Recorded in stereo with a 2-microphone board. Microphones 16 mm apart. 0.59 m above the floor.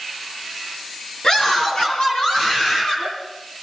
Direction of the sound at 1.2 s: 70° left (ahead or behind).